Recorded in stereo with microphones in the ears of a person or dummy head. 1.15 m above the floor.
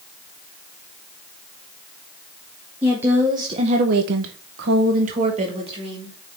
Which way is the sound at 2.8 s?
10° right (ahead or behind).